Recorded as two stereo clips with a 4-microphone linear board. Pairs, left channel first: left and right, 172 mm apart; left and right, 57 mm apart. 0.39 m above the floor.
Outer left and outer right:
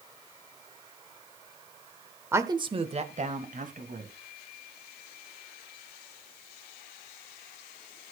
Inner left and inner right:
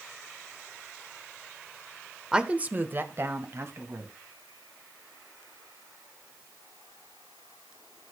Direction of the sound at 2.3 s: 15° right (ahead or behind).